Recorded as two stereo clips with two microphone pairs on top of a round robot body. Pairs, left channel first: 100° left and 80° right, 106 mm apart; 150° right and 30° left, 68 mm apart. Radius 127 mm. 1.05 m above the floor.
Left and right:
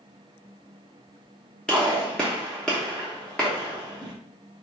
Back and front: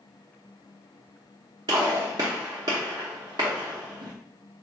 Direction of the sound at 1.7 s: 10° left.